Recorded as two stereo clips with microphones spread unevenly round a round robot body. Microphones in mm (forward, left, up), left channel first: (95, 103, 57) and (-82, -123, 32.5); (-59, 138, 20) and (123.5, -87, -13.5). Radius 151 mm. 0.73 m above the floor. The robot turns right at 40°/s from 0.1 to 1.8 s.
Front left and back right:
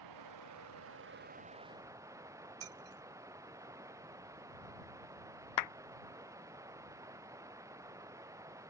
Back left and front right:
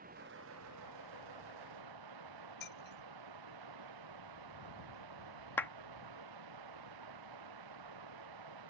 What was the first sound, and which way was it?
Running water, 115° right.